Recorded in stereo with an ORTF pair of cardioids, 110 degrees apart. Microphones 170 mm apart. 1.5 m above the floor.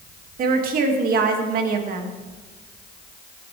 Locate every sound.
0.4 s a woman speaking: 55° right, 2.5 m